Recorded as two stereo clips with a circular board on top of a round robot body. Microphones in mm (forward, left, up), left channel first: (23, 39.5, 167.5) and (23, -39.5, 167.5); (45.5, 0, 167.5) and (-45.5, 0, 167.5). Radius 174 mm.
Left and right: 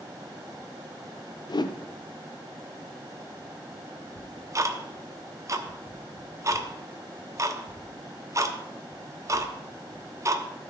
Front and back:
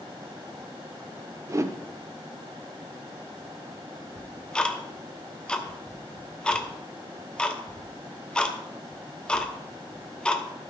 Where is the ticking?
75° right, 1.3 m.